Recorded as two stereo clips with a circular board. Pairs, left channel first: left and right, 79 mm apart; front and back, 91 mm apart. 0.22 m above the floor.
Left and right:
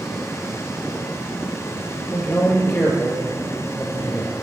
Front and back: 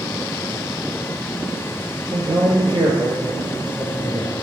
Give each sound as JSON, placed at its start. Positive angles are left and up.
{"t": 2.1, "sound": "a man speaking", "azimuth_deg": 155, "distance_m": 4.0}